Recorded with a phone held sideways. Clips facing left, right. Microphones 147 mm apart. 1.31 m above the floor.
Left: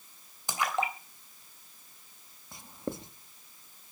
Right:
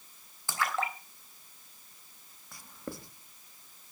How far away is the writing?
About 1.2 m.